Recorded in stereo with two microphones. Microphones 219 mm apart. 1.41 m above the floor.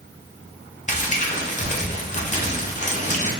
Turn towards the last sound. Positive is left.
turn(degrees=35)  # may be behind; listen again after turning